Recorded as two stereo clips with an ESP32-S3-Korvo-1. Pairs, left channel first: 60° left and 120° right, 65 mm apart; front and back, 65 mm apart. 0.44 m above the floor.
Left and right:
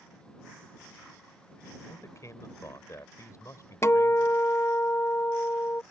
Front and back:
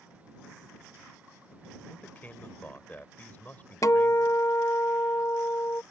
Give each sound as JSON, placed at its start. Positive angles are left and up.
{"t": 1.9, "sound": "a man speaking", "azimuth_deg": 55}
{"t": 3.8, "sound": "a guitar", "azimuth_deg": 20}